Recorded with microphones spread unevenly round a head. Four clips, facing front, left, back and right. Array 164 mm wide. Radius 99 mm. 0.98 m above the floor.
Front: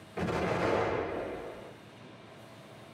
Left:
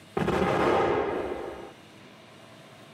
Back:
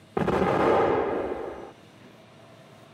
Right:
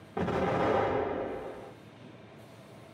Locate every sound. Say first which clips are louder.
0.2 s an explosion: left 4 dB, back 8 dB; 160° left, 0.5 m